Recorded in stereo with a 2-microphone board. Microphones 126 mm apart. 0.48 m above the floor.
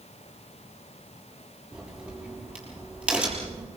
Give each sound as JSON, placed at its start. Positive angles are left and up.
{"t": 1.7, "sound": "a crack", "side_deg": -10, "distance_m": 6.0}